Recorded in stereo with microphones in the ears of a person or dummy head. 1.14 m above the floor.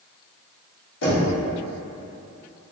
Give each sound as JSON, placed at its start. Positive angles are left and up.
{"t": 1.0, "sound": "knocking", "side_deg": 70, "distance_m": 1.5}